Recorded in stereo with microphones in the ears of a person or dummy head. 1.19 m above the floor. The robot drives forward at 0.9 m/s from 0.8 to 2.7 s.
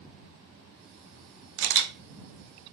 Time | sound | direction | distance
1.6 | a camera shutter | 65° right (ahead or behind) | 0.8 m